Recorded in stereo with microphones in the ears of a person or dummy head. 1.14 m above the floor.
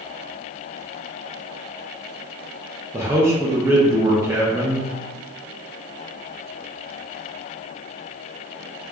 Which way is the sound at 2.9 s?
10° right (ahead or behind).